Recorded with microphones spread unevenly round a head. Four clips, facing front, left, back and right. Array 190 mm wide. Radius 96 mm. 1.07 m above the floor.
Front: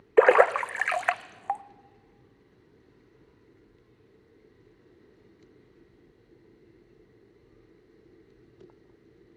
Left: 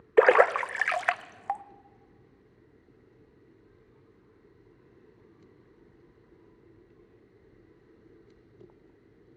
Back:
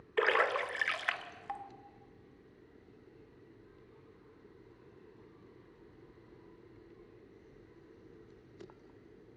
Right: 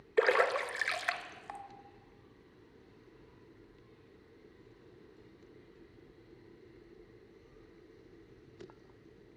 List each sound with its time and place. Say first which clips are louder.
0.2 s a splash: left 9 dB, front 12 dB; 35° left, 0.6 m